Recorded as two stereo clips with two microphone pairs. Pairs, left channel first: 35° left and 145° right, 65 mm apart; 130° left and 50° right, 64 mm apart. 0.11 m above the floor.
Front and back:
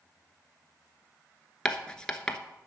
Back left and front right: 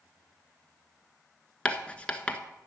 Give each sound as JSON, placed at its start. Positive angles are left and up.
{"t": 1.6, "sound": "writing", "azimuth_deg": 90, "distance_m": 1.0}